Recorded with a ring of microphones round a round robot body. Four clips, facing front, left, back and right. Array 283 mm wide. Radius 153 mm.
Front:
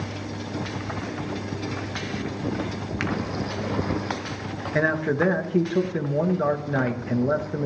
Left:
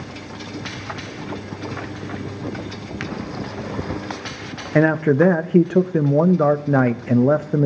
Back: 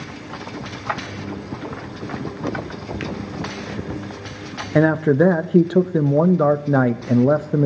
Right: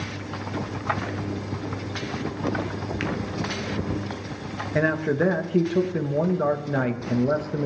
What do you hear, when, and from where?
3.0 s a finger snap: 25° left, 0.9 m
4.8 s a man speaking: 135° left, 0.7 m